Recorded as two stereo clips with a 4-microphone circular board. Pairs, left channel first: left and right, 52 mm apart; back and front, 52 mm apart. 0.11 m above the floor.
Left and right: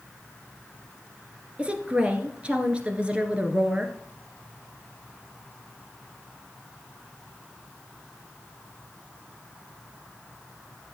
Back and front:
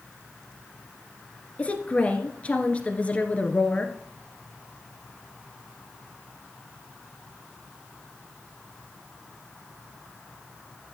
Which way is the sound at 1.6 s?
140° right.